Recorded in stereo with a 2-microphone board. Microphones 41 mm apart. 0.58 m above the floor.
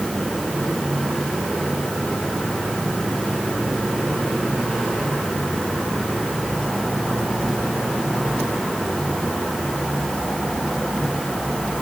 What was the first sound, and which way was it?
Only background noise.